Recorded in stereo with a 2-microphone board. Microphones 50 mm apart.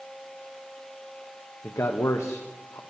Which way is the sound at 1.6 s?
75° left (ahead or behind).